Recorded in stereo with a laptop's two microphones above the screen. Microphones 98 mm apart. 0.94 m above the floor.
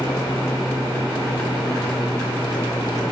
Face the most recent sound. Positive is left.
turn(degrees=40)  # may be behind; listen again after turning